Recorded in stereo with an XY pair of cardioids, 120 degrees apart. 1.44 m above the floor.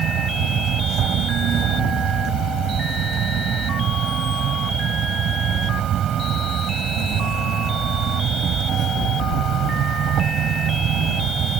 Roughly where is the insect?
Ahead right.